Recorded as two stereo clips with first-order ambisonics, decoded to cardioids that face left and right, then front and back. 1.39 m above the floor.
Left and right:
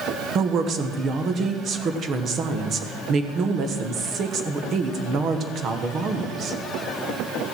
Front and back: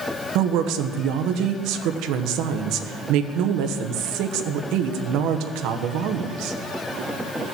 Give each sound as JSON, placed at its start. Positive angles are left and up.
{"t": 0.3, "sound": "a woman speaking", "azimuth_deg": -150, "distance_m": 1.2}